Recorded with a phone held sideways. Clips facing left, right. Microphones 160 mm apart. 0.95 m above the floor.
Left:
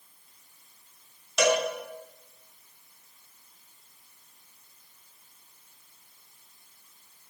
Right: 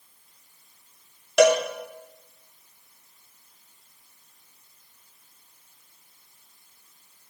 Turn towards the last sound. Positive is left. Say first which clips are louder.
# right 7 dB
turn(degrees=-80)